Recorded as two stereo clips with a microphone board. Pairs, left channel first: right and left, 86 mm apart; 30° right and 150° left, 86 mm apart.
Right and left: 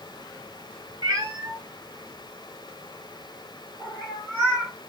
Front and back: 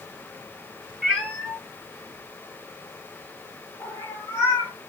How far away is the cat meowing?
About 1.9 m.